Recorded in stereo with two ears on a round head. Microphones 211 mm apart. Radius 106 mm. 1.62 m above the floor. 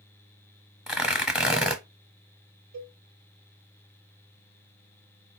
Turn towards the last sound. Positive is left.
turn(degrees=-75)  # may be behind; listen again after turning